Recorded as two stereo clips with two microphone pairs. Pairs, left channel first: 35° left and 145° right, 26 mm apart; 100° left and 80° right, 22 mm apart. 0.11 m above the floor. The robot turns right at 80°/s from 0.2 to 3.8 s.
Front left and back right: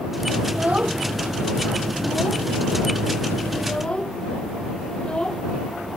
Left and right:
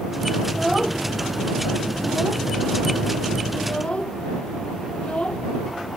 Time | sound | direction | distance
0.5 | a child speaking | 175° left | ?